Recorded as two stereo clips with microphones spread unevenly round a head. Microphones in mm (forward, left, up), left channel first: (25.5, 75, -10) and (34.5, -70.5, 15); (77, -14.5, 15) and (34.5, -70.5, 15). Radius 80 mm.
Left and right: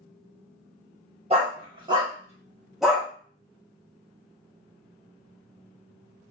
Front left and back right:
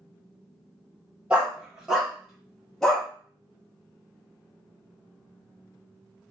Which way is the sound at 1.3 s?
55° right.